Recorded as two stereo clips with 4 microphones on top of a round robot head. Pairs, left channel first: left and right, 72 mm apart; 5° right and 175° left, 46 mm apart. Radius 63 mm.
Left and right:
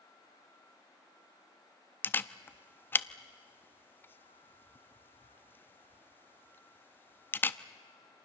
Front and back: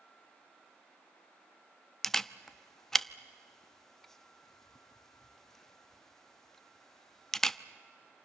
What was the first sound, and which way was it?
A camera shutter, 70° left.